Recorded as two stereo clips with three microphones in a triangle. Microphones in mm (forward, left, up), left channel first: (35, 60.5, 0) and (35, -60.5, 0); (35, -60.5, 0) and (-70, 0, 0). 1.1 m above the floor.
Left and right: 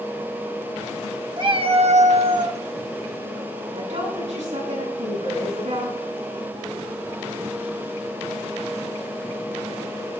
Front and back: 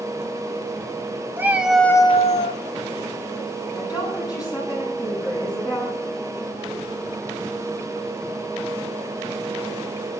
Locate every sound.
1.4 s a cat meowing: 135° right, 1.3 m; by 2.6 s 20° right, 1.0 m
3.7 s a woman speaking: 90° right, 8.5 m